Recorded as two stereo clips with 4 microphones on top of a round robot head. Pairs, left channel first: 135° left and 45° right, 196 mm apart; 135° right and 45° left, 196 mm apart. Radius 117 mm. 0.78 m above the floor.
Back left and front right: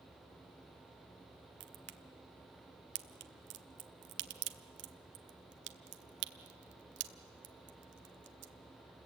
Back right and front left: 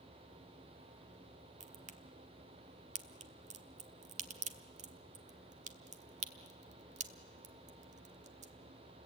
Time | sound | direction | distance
1.6 | a crack | 10° right | 1.1 m